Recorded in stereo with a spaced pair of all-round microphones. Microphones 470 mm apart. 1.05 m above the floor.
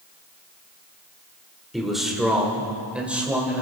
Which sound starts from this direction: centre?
A man speaking, at 1.7 s.